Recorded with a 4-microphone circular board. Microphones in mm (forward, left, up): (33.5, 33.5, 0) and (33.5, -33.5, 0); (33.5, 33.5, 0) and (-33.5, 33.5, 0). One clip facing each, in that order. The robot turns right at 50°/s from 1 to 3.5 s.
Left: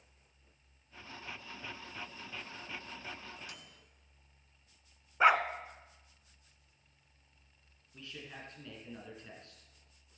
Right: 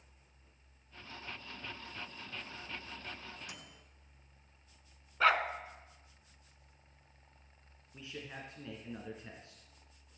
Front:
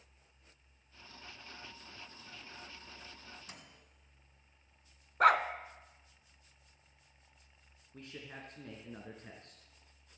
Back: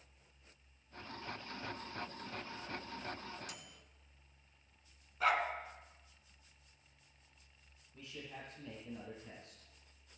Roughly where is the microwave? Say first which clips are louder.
Right 1 dB, back 2 dB; ahead right.